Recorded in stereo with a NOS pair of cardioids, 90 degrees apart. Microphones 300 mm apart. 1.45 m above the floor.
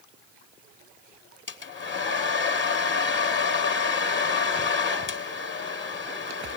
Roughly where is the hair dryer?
Ahead left.